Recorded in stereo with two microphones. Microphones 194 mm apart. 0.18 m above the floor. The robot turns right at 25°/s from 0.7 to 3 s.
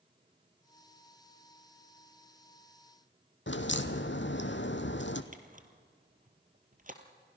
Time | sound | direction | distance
3.5 | a crack | 75° left (ahead or behind) | 1.2 m
5.3 | a camera shutter | 45° right (ahead or behind) | 1.7 m